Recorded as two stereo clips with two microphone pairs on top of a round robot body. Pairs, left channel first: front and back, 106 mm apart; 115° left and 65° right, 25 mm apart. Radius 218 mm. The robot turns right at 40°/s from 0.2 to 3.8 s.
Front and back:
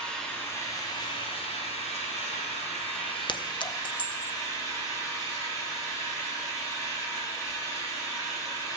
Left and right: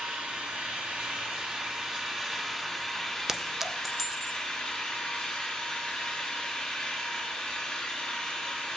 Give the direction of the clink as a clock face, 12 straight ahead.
12 o'clock.